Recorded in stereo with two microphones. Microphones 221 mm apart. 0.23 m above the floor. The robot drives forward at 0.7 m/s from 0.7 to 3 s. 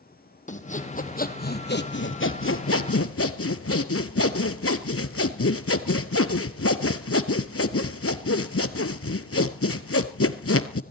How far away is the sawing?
About 1.9 m.